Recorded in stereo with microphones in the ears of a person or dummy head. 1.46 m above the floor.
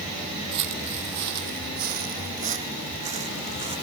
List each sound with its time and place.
0.5 s footsteps: 60° right (ahead or behind); by 3.8 s 30° right (ahead or behind)